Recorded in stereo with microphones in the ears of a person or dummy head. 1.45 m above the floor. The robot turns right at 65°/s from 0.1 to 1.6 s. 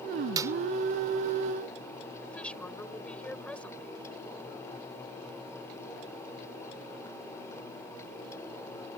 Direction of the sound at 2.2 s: 5° left (ahead or behind).